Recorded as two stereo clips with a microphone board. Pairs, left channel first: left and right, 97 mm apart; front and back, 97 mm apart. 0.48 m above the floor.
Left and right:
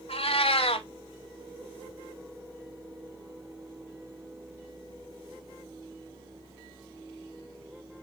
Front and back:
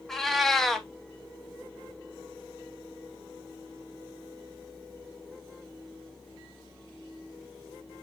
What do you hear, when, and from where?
0.1 s a cat meowing: 85° left, 0.6 m